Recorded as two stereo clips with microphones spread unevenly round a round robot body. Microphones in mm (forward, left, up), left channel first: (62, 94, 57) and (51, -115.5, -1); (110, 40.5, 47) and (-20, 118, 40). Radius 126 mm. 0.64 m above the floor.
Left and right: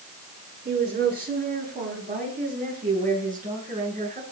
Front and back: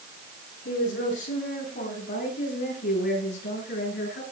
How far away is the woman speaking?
About 9 m.